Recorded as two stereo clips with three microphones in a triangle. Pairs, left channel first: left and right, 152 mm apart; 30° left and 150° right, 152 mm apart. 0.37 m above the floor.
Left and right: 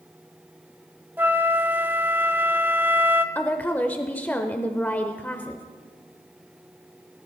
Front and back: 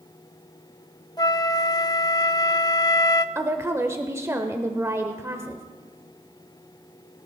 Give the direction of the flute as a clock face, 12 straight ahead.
1 o'clock.